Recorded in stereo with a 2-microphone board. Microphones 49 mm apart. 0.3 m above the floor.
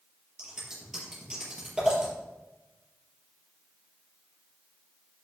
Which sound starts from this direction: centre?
Scissors, at 0.4 s.